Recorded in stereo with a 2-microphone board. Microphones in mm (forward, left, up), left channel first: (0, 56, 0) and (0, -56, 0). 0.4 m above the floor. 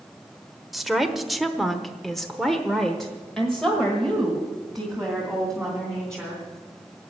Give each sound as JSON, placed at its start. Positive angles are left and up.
{"t": 0.7, "sound": "a woman speaking", "side_deg": 0, "distance_m": 1.3}